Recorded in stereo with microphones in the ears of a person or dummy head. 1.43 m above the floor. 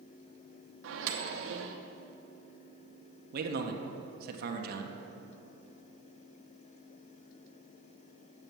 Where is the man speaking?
60° right (ahead or behind), 1.2 m.